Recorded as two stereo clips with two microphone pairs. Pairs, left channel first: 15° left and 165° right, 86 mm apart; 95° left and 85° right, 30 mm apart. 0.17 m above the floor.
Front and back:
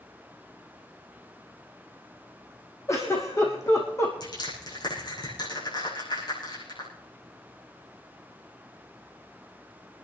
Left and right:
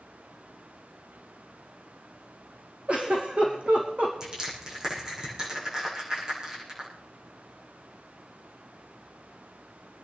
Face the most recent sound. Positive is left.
turn(degrees=-15)